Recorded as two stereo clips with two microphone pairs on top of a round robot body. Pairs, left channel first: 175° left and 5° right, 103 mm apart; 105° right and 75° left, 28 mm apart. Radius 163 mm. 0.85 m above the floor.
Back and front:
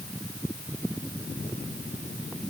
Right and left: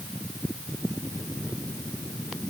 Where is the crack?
I don't hear a crack.